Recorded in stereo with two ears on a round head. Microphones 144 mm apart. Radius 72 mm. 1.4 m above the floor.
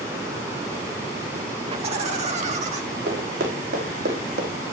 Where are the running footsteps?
75° right (ahead or behind), 5 m; by 4.5 s 65° right (ahead or behind), 3.5 m.